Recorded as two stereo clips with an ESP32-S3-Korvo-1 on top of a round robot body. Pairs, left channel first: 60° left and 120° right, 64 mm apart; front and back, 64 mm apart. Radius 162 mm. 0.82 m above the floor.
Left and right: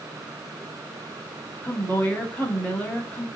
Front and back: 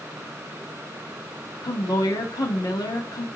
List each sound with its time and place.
1.6 s a woman speaking: 5° right, 1.7 m